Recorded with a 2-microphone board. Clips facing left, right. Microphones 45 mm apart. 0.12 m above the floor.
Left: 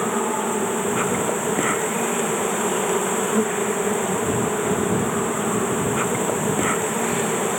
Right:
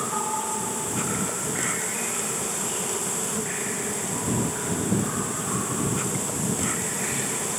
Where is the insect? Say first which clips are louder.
Left 6 dB; 35° left (ahead or behind).